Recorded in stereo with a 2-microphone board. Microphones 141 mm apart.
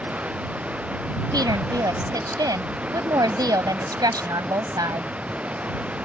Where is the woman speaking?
30° right (ahead or behind).